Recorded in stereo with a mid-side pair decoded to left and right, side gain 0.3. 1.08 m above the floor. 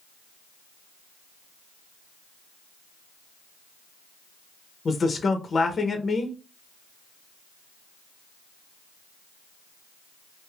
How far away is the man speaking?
About 0.6 m.